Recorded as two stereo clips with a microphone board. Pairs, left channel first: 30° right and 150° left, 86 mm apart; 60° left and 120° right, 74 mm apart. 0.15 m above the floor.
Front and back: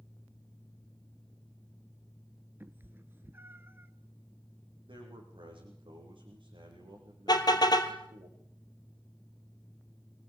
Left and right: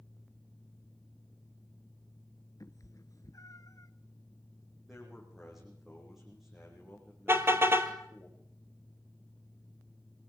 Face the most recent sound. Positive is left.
turn(degrees=-65)